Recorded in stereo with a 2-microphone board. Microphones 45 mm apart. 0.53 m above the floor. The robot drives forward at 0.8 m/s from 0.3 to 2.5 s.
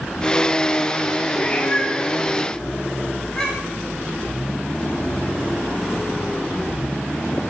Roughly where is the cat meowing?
Left.